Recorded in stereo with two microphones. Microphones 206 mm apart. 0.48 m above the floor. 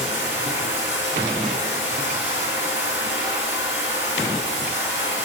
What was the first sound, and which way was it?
Running water, 65° left (ahead or behind).